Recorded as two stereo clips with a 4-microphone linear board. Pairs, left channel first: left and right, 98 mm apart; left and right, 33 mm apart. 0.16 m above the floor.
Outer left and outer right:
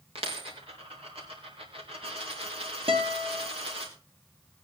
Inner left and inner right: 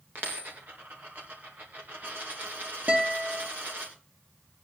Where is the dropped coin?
75° right (ahead or behind), 3.5 m.